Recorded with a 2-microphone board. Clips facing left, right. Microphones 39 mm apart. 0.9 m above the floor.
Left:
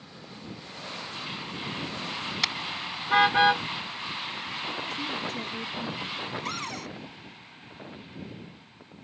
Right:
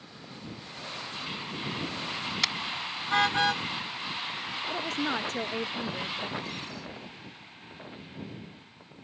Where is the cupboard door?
70° left (ahead or behind).